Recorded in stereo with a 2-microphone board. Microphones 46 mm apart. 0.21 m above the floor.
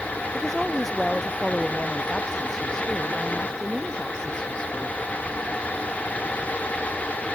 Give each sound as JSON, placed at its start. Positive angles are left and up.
{"t": 0.3, "sound": "a woman speaking", "side_deg": 5}